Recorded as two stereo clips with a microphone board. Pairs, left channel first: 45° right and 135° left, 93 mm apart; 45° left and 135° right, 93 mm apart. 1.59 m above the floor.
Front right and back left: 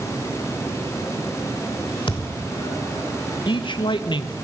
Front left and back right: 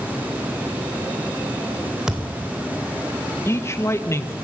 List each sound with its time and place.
2.1 s a thud: 55° right, 2.5 m
3.5 s a man speaking: 15° right, 1.3 m